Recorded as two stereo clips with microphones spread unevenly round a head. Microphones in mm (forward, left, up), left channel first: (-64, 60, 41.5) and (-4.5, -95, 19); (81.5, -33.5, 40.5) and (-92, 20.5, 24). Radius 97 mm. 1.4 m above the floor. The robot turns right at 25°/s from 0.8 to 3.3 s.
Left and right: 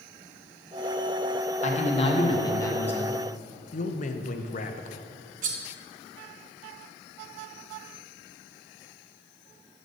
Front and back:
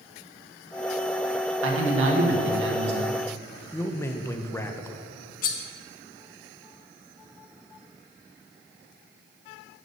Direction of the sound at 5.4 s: 25° right.